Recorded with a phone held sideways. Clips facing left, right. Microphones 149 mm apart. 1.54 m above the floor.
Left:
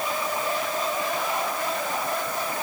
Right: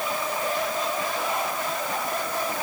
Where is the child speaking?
I don't hear a child speaking.